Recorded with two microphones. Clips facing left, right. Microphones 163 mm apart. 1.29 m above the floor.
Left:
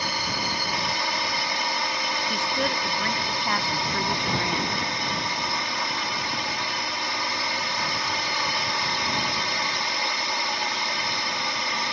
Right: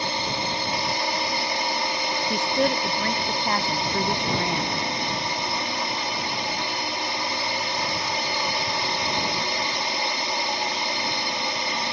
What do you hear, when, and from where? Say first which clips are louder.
0.0 s a drone: right 2 dB; 25° right (ahead or behind)
2.3 s a woman speaking: right 6 dB; 30° right (ahead or behind)